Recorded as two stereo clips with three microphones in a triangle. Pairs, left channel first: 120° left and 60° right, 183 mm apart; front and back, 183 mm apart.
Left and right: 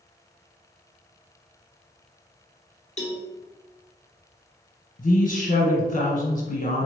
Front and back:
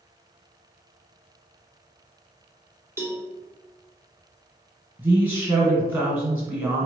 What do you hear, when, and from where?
3.0 s a cowbell: 110° left, 0.9 m
5.0 s a man speaking: 105° left, 1.5 m